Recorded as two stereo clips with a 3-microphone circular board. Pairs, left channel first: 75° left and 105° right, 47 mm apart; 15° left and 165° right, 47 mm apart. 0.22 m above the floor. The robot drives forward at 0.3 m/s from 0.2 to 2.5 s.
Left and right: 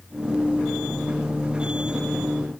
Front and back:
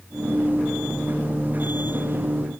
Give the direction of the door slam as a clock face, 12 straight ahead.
No door slam in this recording.